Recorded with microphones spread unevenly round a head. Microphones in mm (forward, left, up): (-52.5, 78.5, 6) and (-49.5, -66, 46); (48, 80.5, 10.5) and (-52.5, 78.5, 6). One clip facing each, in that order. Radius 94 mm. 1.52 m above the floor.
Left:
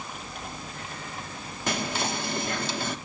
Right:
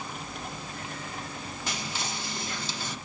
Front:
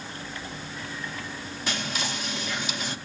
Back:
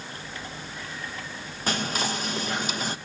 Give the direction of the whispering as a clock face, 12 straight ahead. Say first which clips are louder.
Left 9 dB, back 4 dB; 8 o'clock.